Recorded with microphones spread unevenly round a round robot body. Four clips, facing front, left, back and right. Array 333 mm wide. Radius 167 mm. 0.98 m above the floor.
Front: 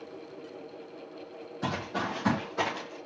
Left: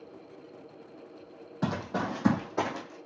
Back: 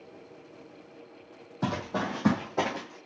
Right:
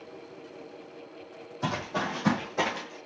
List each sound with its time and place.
1.6 s running footsteps: 135° left, 2 m; by 3.0 s 140° left, 3.5 m